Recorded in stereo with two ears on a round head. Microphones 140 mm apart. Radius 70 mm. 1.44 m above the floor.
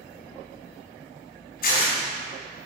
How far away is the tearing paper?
About 4 m.